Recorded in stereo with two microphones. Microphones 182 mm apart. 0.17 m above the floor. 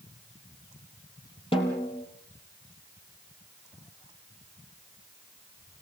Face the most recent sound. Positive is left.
turn(degrees=30)  # may be behind; listen again after turning